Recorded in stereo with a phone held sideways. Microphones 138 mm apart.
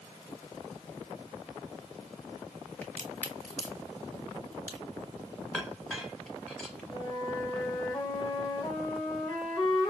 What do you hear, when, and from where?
2.8 s a crack: 15° left (ahead or behind), 1.2 m
5.5 s a clink: 5° left (ahead or behind), 1.0 m
6.9 s a flute: 30° left (ahead or behind), 1.1 m